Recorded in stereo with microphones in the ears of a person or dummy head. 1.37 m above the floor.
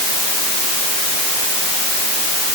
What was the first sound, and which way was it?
Only background noise.